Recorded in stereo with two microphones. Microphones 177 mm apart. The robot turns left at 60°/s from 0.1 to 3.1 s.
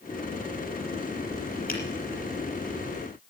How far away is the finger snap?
About 5.5 m.